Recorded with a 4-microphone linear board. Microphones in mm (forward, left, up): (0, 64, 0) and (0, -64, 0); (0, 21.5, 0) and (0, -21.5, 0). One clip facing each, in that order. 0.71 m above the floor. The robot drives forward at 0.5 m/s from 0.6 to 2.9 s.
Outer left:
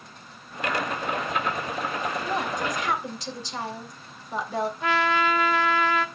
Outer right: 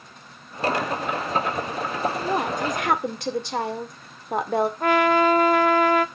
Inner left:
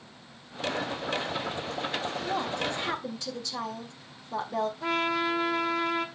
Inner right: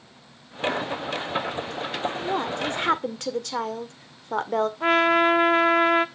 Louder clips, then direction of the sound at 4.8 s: Outer right 6 dB, inner right 11 dB; 50° right (ahead or behind).